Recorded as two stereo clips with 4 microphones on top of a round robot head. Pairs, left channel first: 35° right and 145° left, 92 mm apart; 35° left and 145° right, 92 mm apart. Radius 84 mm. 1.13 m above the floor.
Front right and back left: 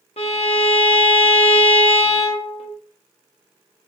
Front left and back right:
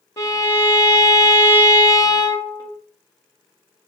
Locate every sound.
0.2 s a violin: 20° right, 0.6 m